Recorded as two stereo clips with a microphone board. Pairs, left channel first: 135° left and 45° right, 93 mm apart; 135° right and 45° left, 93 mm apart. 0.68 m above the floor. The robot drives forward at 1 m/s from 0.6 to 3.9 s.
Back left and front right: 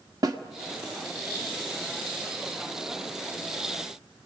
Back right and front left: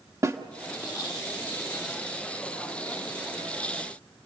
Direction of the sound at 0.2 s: 5° right.